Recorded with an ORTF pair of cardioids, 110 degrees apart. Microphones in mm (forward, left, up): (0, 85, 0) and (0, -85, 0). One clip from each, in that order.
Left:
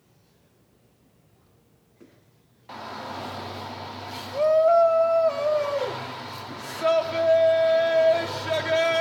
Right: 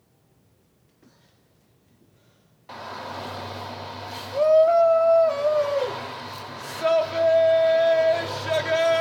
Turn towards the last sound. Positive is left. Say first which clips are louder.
# right 1 dB
turn(degrees=-5)